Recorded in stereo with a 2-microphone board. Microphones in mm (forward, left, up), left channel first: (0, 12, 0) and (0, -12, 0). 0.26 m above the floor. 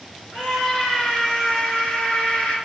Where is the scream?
55° left (ahead or behind), 4.5 m; by 2.6 s 70° left (ahead or behind), 5 m.